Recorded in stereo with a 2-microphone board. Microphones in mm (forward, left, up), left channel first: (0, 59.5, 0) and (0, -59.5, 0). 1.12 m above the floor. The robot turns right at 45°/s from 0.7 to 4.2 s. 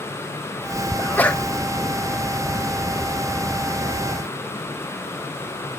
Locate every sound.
1.0 s a sneeze: 25° left (ahead or behind), 1.1 m; by 1.4 s 5° left (ahead or behind), 1.1 m